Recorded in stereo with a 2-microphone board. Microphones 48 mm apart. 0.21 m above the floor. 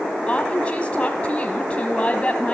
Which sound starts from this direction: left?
A woman speaking, at 0.3 s.